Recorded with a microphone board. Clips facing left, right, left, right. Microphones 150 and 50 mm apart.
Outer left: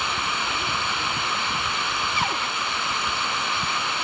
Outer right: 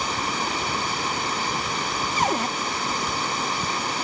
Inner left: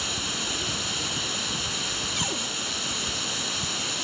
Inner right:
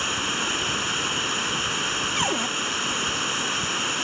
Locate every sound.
0.0 s running water: 40° right (ahead or behind)
2.2 s a cupboard door: 40° right (ahead or behind)